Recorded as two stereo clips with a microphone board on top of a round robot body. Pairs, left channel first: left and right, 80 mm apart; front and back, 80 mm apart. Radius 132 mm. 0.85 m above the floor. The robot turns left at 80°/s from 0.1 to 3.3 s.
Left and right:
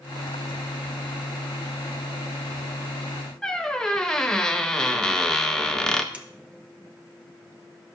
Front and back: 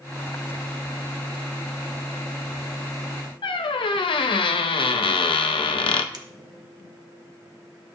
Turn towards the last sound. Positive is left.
turn(degrees=-165)